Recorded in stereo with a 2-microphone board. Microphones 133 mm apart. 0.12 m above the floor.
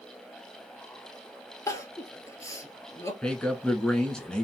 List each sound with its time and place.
1.7 s crying: 20° left (ahead or behind), 0.8 m
3.2 s a man speaking: 5° left (ahead or behind), 1.3 m